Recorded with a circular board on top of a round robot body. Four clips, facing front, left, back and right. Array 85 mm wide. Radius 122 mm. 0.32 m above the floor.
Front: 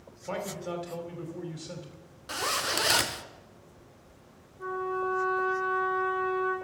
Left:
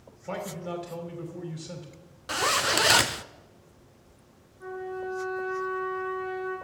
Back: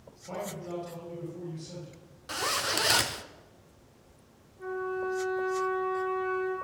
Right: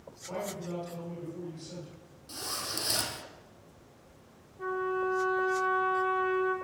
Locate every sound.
0.3 s a man speaking: 45° left, 2.5 m
2.3 s a zipper: 90° left, 0.6 m
4.6 s a trumpet: 85° right, 4 m